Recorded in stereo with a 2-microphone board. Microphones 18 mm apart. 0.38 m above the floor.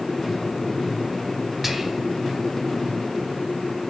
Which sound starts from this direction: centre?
Whispering, at 1.6 s.